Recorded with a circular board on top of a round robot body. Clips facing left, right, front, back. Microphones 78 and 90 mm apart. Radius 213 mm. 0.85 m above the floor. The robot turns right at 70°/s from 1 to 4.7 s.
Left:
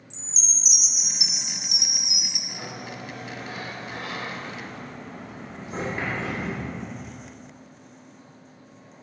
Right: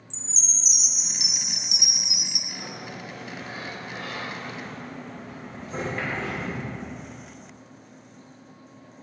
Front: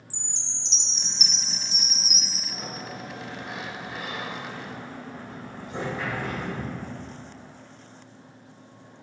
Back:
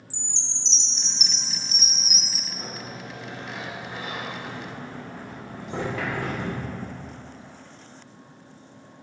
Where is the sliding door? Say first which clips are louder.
Left 1 dB, front 1 dB; 15° left, 1.9 m; by 7.1 s 170° left, 1.9 m.